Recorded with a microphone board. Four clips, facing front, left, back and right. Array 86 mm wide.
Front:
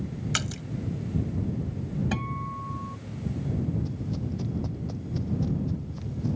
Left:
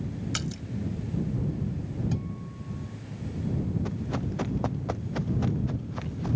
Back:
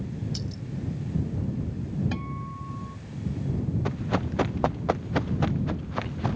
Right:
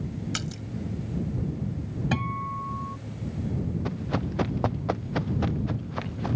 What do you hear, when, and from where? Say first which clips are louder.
0.3 s a splash: even, front 3 dB; straight ahead
2.1 s a guitar: right 6 dB, front 3 dB; 75° right
3.9 s running footsteps: right 2 dB, back 5 dB; 165° right; by 6.4 s 155° right